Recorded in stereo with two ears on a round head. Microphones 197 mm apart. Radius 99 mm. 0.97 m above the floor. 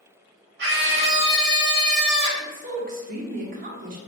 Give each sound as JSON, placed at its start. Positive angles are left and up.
{"t": 0.6, "sound": "a scream", "side_deg": -50, "distance_m": 1.5}
{"t": 2.4, "sound": "a woman speaking", "side_deg": -35, "distance_m": 0.6}